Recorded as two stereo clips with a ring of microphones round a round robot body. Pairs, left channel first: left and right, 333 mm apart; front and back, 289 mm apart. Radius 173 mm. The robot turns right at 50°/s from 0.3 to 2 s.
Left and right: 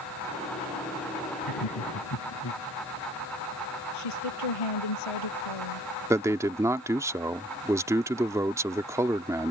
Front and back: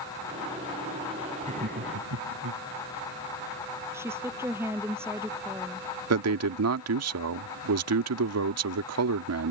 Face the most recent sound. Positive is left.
turn(degrees=-170)